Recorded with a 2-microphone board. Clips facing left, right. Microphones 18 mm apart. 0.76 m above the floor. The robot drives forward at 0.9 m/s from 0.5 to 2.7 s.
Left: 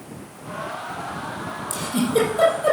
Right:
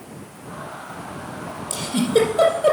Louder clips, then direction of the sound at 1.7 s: Right 2 dB; 30° right (ahead or behind).